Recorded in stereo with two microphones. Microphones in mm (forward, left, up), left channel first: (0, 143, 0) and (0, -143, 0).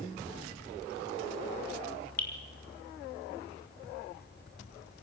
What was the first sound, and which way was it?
Dripping, 65° left (ahead or behind).